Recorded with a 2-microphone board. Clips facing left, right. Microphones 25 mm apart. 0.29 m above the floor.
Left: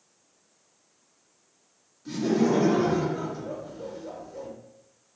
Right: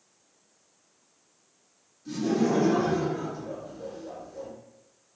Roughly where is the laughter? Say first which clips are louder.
Left 2 dB; left.